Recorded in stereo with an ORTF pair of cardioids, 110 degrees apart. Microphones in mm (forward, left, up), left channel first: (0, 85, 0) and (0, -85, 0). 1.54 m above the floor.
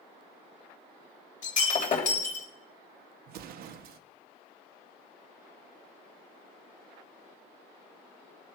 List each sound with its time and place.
1.4 s breaking glass: 50° left, 3.5 m
3.3 s an explosion: 70° right, 0.9 m